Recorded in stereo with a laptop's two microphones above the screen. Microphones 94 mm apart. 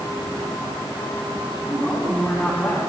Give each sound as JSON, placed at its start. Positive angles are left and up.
{"t": 1.6, "sound": "a woman speaking", "side_deg": 20, "distance_m": 8.0}